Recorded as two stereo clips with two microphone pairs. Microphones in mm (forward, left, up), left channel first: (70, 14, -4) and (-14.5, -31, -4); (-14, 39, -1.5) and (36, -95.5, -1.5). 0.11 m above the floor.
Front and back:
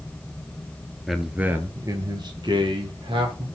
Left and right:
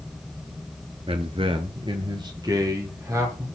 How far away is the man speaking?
About 1.5 m.